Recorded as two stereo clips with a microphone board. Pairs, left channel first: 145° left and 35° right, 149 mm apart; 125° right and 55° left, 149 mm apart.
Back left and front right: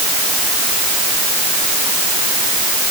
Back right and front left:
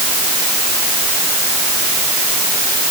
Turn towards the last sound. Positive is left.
No sound to turn to.